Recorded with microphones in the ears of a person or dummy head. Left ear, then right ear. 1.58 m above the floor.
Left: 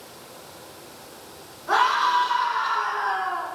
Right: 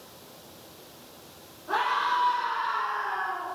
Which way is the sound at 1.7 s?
60° left (ahead or behind).